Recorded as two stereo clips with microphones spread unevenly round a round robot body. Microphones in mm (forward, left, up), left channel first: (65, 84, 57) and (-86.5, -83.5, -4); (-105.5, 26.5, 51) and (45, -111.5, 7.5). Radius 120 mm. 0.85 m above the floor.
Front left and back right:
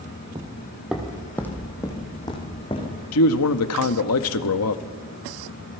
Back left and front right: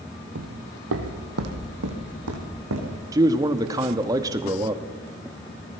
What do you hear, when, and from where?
0.3 s footsteps: 55° right, 1.8 m; by 3.0 s 15° right, 4 m
3.1 s a man speaking: 25° left, 1.1 m